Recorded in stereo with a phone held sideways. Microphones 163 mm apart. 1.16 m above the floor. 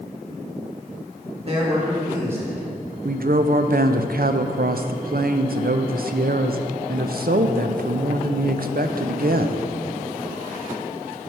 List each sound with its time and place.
1.4 s a man speaking: 40° right (ahead or behind), 1.6 m; by 2.6 s 10° right (ahead or behind), 2 m
3.0 s a woman speaking: 70° right (ahead or behind), 0.6 m